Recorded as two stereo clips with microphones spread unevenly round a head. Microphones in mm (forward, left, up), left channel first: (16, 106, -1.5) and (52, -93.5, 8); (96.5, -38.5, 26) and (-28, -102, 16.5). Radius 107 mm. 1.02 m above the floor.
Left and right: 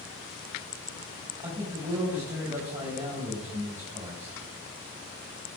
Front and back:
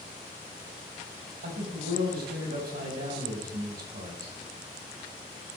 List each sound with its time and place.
1.4 s a man speaking: 155° right, 5 m